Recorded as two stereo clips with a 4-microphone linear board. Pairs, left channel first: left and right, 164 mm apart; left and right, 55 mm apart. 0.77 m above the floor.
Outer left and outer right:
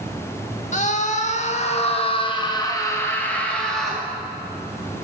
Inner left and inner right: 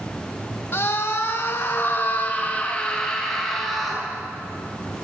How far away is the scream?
About 1.4 m.